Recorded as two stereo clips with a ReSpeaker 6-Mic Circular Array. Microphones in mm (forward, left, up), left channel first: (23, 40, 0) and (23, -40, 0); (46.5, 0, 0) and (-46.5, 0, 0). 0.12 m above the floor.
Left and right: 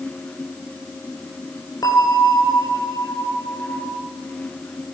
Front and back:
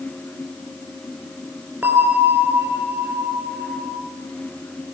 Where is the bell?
115° left, 2.5 m.